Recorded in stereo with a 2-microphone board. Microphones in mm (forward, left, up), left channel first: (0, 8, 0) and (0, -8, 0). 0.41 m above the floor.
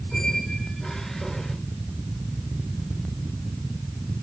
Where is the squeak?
20° left (ahead or behind), 4 m.